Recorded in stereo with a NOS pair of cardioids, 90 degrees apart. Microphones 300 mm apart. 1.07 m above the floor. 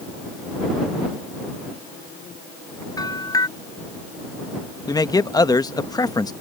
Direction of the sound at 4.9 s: 15° left.